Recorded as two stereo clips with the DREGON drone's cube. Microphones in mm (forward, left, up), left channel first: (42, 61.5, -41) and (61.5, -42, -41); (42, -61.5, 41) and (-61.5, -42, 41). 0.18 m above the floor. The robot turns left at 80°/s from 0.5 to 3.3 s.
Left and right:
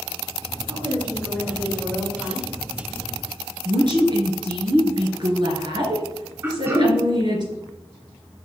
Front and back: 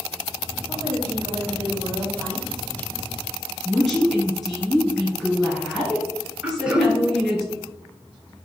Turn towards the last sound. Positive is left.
turn(degrees=-115)